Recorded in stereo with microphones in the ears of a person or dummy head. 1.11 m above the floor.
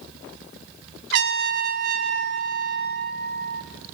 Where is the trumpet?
60° right (ahead or behind), 1.1 m.